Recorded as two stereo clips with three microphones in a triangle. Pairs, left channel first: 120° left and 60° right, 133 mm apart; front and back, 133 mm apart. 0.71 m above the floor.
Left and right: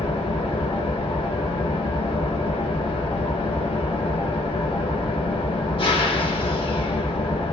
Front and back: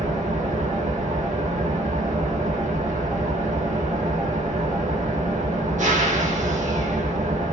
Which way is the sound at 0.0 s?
165° left.